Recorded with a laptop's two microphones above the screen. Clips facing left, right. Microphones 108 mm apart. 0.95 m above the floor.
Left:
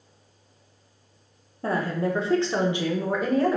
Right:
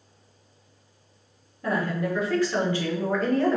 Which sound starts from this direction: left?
A woman speaking, at 1.6 s.